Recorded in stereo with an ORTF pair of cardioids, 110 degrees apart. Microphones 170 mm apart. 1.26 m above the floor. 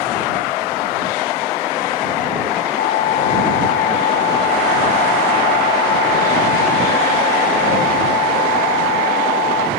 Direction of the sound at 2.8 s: 55° left.